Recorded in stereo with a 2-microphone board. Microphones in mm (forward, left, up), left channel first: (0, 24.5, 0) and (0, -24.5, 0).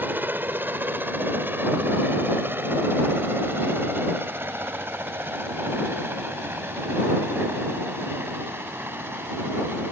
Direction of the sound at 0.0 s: 40° right (ahead or behind).